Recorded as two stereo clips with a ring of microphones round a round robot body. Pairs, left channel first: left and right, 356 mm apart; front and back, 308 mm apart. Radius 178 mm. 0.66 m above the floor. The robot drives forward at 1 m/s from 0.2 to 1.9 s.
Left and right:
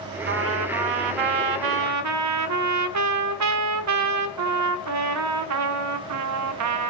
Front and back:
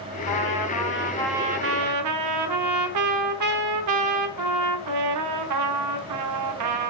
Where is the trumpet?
30° right, 1.2 m; by 6.9 s 135° right, 0.8 m.